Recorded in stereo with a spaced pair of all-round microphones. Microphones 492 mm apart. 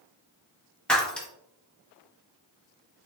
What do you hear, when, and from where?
0.9 s breaking glass: centre (ahead or behind), 0.9 m